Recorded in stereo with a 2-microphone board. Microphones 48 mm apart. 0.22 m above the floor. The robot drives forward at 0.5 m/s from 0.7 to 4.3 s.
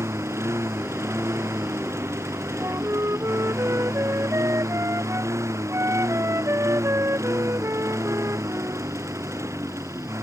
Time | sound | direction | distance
0.0 | a lawn mower | 65° right (ahead or behind) | ?
2.6 | a flute | 75° right (ahead or behind) | ?